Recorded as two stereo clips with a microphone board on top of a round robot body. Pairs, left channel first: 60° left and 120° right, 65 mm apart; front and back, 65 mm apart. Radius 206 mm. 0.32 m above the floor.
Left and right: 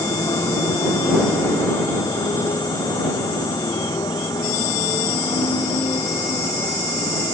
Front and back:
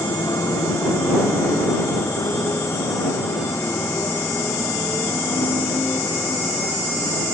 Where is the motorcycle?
40° left; by 7.3 s 60° left.